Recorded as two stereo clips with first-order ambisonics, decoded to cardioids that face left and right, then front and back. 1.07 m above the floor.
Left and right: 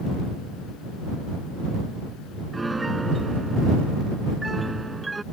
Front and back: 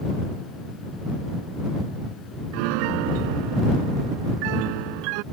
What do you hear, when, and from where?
2.5 s a piano: 170° right